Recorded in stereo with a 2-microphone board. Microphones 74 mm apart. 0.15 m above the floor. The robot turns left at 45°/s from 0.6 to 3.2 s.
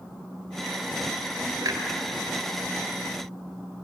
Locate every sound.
1.6 s a clunk: 55° right (ahead or behind), 2.5 m; by 1.8 s 60° right (ahead or behind), 2.5 m